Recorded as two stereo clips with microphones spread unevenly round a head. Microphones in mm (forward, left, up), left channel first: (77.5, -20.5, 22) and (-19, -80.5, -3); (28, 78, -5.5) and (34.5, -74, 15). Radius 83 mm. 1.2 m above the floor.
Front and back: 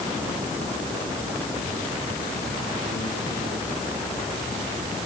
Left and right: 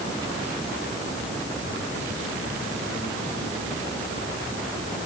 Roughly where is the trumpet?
No trumpet in this recording.